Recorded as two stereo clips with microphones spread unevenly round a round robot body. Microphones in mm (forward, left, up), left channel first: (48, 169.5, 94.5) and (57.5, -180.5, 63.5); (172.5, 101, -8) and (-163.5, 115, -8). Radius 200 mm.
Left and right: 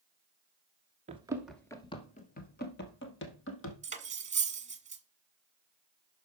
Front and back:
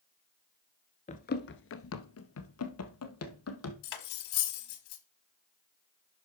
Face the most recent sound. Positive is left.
turn(degrees=-15)